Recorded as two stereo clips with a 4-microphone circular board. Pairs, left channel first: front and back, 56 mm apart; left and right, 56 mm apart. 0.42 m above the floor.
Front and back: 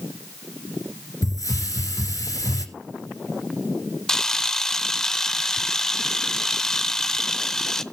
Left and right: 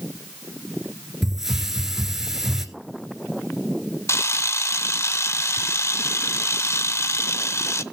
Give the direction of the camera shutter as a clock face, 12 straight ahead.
9 o'clock.